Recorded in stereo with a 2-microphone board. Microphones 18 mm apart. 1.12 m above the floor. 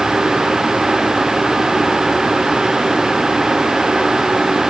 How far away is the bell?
No bell in this recording.